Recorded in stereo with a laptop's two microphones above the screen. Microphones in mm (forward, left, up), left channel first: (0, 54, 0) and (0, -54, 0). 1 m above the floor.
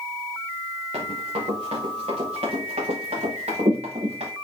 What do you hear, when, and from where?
0.9 s running footsteps: 80° right, 5 m